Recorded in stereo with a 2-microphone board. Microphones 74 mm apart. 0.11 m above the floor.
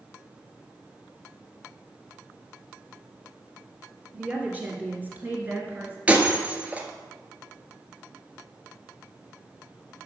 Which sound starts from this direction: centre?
Breaking glass, at 6.1 s.